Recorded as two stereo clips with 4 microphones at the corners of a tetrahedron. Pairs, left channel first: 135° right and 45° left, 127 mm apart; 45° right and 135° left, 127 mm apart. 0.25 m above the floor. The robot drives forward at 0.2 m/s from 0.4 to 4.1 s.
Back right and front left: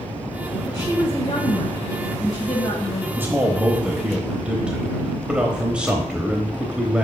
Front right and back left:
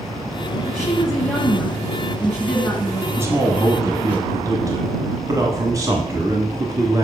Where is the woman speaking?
125° right, 1.5 m; by 4.2 s 150° right, 1.8 m.